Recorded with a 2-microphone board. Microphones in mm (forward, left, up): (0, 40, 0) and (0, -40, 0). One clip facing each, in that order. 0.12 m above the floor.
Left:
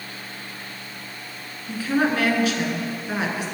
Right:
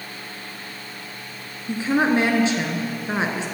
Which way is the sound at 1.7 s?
25° right (ahead or behind).